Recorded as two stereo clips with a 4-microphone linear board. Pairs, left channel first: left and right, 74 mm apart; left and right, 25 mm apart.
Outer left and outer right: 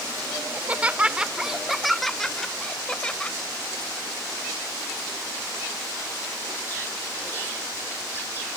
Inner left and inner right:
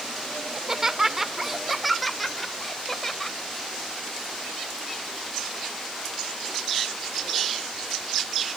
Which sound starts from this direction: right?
Laughter, at 0.5 s.